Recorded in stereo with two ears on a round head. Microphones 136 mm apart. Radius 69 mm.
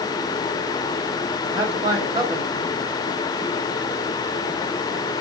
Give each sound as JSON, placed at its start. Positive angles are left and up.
{"t": 1.5, "sound": "a man speaking", "side_deg": -35, "distance_m": 2.0}